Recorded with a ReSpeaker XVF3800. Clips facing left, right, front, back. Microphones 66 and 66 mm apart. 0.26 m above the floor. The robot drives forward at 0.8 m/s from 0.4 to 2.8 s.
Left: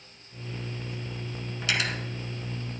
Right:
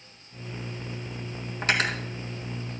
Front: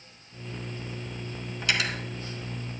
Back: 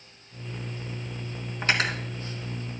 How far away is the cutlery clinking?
About 1.5 m.